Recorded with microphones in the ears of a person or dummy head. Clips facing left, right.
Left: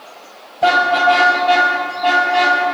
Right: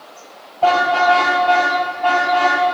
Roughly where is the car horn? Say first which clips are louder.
Even; left.